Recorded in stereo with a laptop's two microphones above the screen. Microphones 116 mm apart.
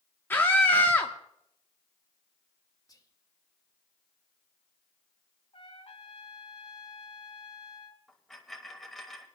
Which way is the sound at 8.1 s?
5° left (ahead or behind).